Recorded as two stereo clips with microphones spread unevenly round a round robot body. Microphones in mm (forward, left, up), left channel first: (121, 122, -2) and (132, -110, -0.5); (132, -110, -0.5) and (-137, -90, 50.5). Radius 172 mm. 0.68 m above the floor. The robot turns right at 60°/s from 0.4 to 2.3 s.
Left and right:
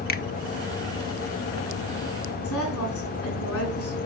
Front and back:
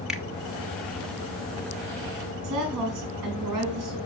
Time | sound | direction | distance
0.1 | a finger snap | 75° left | 0.9 m
2.4 | a woman speaking | 175° left | 6.5 m